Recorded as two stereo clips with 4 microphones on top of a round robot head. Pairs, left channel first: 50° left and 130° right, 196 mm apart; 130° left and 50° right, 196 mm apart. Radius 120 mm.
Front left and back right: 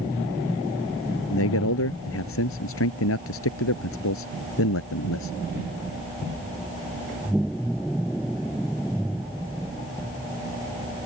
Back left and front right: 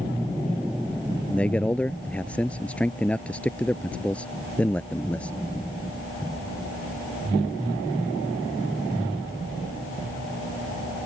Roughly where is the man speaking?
Ahead left.